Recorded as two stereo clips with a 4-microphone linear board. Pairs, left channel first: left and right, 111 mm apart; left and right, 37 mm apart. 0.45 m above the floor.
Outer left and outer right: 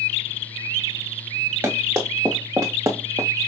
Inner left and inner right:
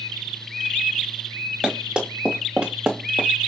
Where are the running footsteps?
25° right (ahead or behind), 2.5 m; by 3.3 s 30° right (ahead or behind), 1.2 m.